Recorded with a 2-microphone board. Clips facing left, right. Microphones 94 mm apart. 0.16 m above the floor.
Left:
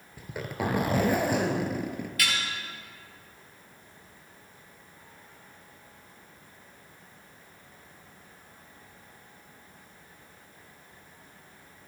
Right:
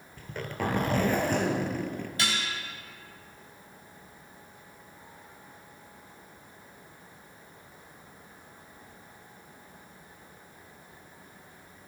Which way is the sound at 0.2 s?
10° left (ahead or behind).